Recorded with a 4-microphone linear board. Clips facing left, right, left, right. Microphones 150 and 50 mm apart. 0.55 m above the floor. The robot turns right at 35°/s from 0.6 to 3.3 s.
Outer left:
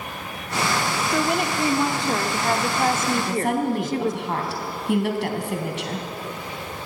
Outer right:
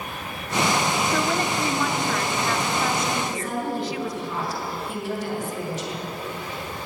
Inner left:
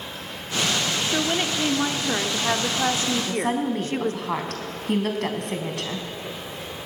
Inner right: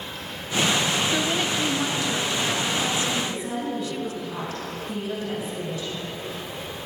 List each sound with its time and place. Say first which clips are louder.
1.1 s a woman speaking: outer left 1 dB, even; 15° left, 1.2 m; by 4.2 s 90° left, 1.2 m
3.1 s a woman speaking: outer left 5 dB, inner left 4 dB; 65° left (ahead or behind), 3.5 m; by 6.1 s 70° left (ahead or behind), 3.5 m